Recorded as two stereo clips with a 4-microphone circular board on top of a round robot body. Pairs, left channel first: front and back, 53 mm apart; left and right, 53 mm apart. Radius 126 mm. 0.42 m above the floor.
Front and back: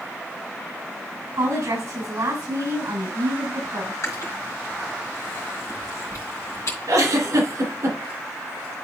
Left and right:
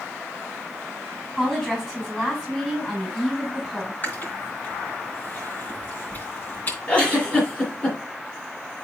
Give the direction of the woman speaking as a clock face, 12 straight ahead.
7 o'clock.